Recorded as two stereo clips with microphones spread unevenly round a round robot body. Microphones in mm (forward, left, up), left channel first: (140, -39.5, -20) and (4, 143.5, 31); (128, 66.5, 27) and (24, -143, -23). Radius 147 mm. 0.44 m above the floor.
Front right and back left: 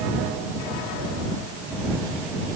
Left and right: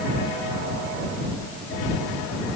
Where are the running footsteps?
No running footsteps in this recording.